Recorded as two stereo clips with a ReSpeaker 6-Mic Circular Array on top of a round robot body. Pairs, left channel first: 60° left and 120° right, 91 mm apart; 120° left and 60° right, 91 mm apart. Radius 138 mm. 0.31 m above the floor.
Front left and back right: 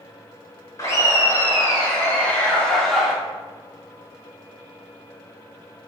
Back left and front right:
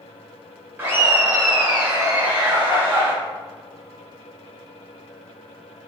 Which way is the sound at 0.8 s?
15° left.